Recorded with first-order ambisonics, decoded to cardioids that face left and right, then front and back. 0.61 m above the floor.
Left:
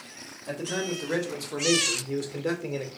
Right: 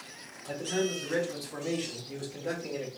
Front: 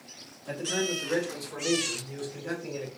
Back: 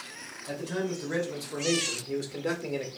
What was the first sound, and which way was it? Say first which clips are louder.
A man speaking: even, front 3 dB; 80° left.